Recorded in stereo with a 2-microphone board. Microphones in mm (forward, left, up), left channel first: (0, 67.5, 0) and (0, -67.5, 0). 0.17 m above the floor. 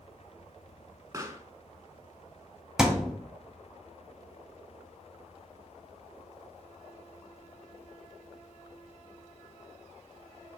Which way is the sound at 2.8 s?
5° right (ahead or behind).